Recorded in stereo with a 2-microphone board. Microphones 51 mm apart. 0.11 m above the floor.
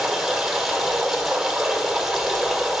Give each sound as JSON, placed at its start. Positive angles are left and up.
{"t": 0.0, "sound": "running water", "side_deg": -10, "distance_m": 1.6}